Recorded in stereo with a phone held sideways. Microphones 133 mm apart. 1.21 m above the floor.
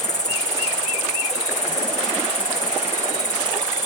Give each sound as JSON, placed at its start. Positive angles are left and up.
{"t": 0.0, "sound": "an insect", "side_deg": 65}